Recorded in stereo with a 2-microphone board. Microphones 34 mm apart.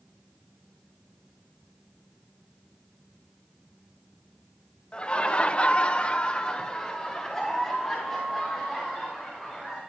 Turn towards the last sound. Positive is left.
turn(degrees=5)  # may be behind; listen again after turning